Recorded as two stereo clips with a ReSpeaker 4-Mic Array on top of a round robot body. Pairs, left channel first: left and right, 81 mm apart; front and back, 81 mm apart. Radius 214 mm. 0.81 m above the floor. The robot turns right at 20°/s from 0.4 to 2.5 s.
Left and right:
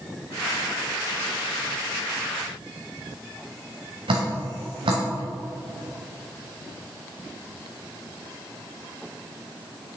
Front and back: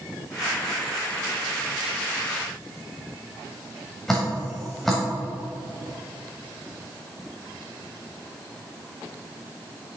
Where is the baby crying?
No baby crying in this recording.